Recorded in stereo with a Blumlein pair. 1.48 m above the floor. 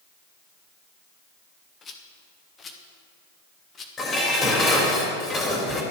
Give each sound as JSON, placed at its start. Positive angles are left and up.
{"t": 1.8, "sound": "a rattle", "azimuth_deg": 20, "distance_m": 1.4}
{"t": 4.0, "sound": "dishes clattering", "azimuth_deg": 15, "distance_m": 3.0}